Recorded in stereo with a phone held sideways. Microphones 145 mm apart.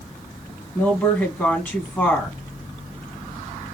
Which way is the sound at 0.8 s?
10° left (ahead or behind).